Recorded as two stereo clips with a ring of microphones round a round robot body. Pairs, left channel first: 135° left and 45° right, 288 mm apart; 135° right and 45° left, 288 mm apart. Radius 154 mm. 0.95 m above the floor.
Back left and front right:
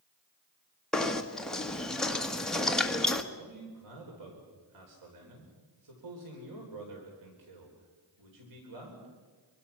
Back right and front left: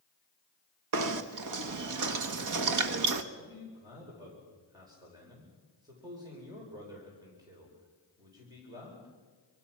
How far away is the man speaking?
About 4.5 m.